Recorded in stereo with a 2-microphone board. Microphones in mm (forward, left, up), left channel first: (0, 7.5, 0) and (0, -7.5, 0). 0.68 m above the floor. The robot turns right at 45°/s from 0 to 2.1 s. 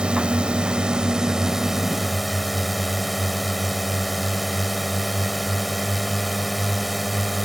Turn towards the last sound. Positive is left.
turn(degrees=0)